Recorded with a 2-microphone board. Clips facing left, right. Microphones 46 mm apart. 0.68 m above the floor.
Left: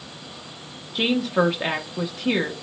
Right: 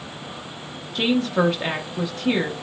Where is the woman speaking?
10° left (ahead or behind), 0.6 m.